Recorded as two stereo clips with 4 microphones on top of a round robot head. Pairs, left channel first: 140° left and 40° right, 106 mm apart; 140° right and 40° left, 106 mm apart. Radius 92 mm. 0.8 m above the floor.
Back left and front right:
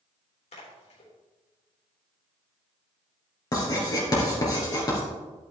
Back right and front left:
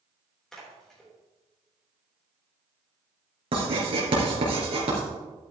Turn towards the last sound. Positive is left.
turn(degrees=80)